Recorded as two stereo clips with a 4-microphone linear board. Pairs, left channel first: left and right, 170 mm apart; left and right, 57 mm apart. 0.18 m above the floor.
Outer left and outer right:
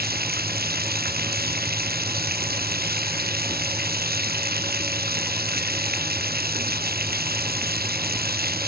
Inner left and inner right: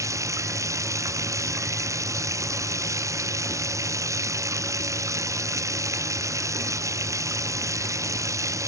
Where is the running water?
65° right (ahead or behind).